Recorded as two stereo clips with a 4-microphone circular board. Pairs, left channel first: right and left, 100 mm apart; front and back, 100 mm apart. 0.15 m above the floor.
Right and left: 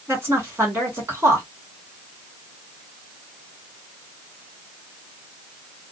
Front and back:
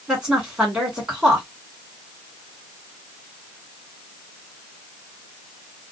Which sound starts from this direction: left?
A woman speaking, at 0.1 s.